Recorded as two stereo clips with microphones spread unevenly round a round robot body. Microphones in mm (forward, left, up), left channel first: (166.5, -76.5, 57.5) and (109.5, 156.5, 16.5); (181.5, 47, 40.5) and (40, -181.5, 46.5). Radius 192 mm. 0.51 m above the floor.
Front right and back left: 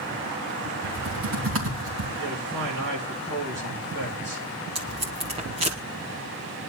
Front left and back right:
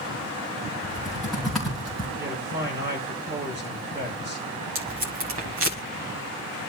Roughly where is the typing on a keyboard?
Behind left.